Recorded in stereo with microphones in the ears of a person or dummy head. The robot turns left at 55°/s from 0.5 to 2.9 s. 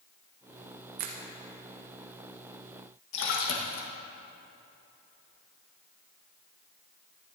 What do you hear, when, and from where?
1.0 s a finger snap: 45° right (ahead or behind), 1.1 m; by 1.2 s 35° right (ahead or behind), 1.1 m
3.1 s a splash: 65° left (ahead or behind), 1.5 m